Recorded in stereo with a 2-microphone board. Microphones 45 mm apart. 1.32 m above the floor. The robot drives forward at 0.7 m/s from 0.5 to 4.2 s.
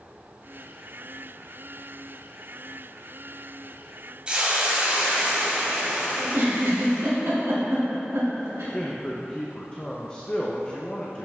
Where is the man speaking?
25° left (ahead or behind), 0.7 m.